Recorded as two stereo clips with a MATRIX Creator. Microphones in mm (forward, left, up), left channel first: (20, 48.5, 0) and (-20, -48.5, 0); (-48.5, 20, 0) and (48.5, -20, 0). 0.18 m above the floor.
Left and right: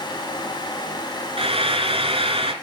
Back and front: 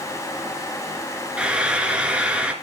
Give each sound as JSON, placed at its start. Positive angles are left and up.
{"t": 1.4, "sound": "frying", "azimuth_deg": -100, "distance_m": 2.0}